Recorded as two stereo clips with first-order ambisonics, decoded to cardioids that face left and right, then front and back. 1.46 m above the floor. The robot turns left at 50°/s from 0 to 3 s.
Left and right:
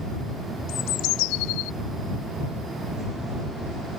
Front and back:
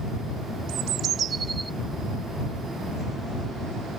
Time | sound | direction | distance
0.7 | a bird | 145° left | ?